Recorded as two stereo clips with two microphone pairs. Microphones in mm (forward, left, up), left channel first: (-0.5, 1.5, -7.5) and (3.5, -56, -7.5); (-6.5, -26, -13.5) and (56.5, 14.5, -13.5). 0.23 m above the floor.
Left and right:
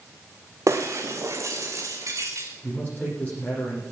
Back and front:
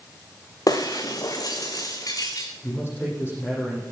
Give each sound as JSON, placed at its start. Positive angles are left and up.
{"t": 0.7, "sound": "breaking glass", "azimuth_deg": -110, "distance_m": 1.8}
{"t": 2.6, "sound": "a man speaking", "azimuth_deg": 155, "distance_m": 9.5}